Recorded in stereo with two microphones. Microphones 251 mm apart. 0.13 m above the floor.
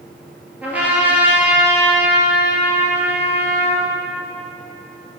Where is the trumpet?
5° right (ahead or behind), 1.8 m.